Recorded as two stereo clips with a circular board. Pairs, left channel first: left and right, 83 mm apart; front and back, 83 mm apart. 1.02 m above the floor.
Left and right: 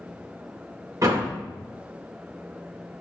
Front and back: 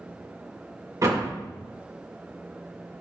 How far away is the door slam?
About 2.5 m.